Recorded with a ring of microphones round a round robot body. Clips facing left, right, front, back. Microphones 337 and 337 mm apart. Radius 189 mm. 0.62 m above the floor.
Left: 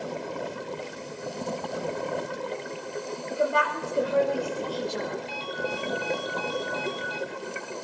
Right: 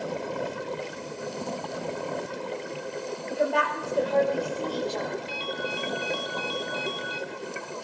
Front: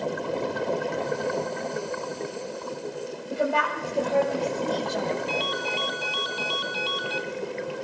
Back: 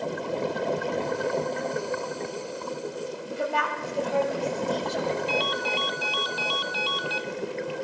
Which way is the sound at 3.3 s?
5° left.